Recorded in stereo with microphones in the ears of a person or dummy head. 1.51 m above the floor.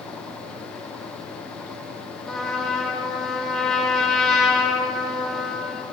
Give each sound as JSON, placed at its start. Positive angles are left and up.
{"t": 2.3, "sound": "a trumpet", "side_deg": 0, "distance_m": 2.0}